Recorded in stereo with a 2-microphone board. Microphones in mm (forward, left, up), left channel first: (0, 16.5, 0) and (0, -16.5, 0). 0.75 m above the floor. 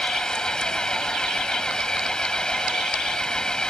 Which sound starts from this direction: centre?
An engine running, at 0.0 s.